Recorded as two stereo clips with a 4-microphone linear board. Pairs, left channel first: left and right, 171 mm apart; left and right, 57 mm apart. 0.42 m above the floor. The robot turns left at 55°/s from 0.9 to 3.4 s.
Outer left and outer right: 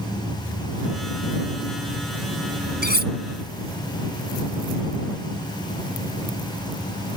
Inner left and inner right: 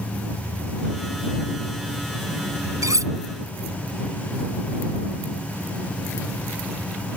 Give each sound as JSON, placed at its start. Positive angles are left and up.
{"t": 2.8, "sound": "cutlery clinking", "side_deg": -80}